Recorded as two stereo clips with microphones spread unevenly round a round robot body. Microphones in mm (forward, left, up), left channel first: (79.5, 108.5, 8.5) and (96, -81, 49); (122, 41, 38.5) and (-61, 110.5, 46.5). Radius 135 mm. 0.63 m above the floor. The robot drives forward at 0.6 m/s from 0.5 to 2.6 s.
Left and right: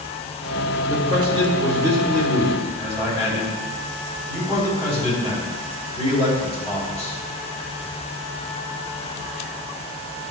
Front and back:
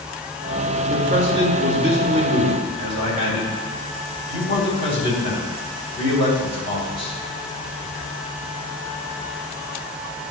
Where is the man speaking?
155° right, 1.6 m; by 7.1 s 165° right, 2.5 m.